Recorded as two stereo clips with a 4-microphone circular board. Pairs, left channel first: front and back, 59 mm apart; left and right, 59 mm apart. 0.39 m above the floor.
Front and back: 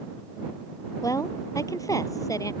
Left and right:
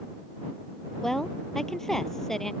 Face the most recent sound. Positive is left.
turn(degrees=5)